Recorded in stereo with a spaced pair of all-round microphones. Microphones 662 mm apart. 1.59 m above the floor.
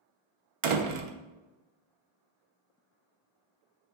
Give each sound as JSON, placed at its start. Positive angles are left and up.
{"t": 0.6, "sound": "a door slam", "side_deg": -55, "distance_m": 0.5}